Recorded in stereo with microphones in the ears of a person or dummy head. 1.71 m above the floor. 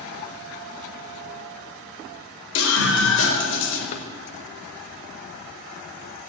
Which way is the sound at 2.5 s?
75° left (ahead or behind).